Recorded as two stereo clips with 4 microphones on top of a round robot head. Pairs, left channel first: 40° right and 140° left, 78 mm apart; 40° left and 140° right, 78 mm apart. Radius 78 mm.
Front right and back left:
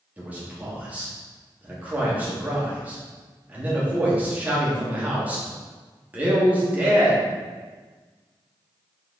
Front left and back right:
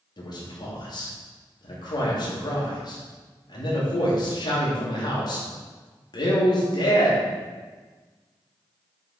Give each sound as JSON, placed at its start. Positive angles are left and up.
{"t": 0.2, "sound": "a man speaking", "azimuth_deg": 65, "distance_m": 2.5}